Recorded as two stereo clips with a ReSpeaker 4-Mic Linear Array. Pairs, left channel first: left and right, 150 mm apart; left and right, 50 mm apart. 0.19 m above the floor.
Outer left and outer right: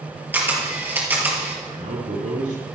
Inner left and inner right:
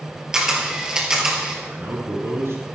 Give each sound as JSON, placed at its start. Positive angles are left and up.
{"t": 0.3, "sound": "a camera shutter", "side_deg": -10, "distance_m": 3.5}
{"t": 1.6, "sound": "a man speaking", "side_deg": -55, "distance_m": 6.0}